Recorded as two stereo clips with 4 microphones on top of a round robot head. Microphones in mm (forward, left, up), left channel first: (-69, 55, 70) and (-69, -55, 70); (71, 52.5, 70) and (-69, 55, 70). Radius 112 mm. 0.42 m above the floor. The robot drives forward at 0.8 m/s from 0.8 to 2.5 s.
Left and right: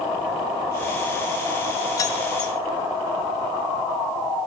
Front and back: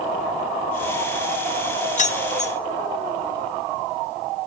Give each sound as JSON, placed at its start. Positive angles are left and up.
{"t": 2.0, "sound": "keys jangling", "azimuth_deg": 25, "distance_m": 1.4}